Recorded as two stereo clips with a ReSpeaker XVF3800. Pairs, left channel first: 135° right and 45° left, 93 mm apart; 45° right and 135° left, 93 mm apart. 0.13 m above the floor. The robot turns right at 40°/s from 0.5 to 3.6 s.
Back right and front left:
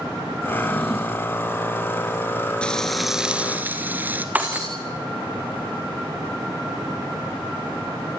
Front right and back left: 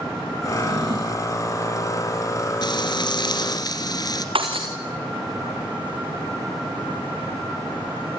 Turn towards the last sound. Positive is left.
turn(degrees=120)